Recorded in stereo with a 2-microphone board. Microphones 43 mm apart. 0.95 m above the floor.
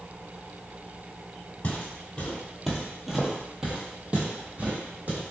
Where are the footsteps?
30° left (ahead or behind), 1.2 m; by 5.2 s 40° right (ahead or behind), 1.6 m.